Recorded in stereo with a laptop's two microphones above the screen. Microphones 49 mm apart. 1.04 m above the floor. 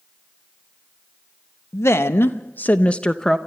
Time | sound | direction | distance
1.7 | a woman speaking | 70° left (ahead or behind) | 0.9 m